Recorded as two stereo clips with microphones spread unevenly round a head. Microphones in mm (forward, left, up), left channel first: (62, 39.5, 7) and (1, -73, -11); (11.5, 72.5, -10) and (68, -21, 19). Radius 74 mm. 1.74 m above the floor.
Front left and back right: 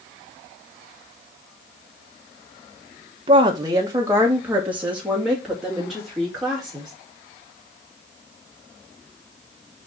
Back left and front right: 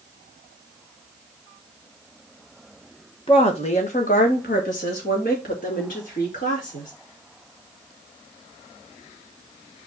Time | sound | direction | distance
3.3 | a woman speaking | straight behind | 1.2 m